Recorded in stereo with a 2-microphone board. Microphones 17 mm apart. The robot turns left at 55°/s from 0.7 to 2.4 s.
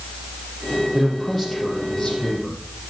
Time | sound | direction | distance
0.9 | a man speaking | 165° right | 4.5 m